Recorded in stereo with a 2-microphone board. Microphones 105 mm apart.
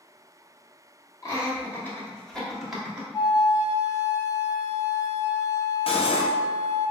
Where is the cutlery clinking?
65° left (ahead or behind), 0.7 m.